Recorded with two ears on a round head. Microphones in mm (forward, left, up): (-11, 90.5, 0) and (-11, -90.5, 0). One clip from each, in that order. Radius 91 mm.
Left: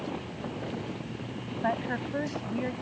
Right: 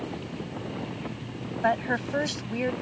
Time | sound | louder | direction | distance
1.6 | a woman speaking | right 5 dB | 85° right | ?